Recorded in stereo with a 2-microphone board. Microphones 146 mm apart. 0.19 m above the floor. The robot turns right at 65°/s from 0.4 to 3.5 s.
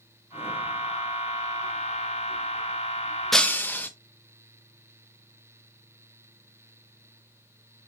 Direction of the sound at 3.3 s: Centre (ahead or behind).